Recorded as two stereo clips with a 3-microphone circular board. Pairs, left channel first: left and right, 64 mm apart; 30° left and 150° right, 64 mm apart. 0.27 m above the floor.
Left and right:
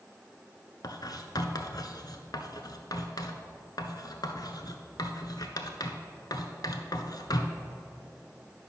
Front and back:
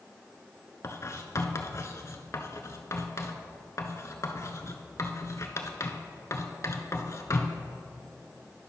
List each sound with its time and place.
0.8 s writing: 70° left, 0.7 m